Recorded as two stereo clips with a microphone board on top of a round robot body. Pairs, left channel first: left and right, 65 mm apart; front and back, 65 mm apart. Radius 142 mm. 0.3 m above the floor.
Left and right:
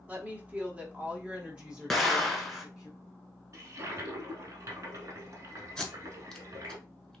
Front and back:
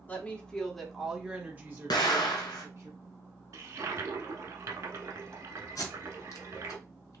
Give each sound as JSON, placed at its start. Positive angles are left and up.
{"t": 0.1, "sound": "a woman speaking", "azimuth_deg": -45, "distance_m": 1.6}
{"t": 1.9, "sound": "an explosion", "azimuth_deg": 5, "distance_m": 0.9}
{"t": 3.5, "sound": "a toilet flushing", "azimuth_deg": -140, "distance_m": 0.8}
{"t": 5.8, "sound": "tape being pulled", "azimuth_deg": 5, "distance_m": 1.9}